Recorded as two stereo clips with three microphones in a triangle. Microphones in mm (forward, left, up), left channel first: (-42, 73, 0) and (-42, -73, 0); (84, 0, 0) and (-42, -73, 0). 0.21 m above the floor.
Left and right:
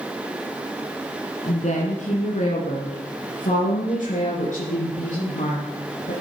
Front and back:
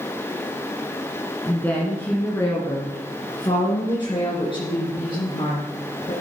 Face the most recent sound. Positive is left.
turn(degrees=75)